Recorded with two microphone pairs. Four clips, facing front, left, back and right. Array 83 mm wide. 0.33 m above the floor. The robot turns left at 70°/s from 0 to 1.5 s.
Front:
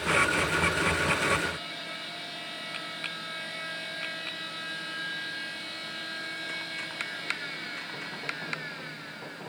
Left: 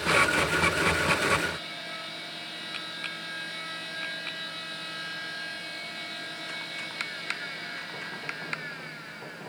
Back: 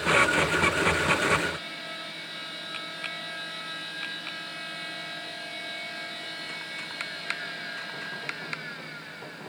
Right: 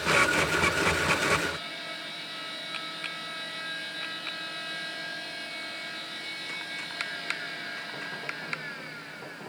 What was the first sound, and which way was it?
Only background noise.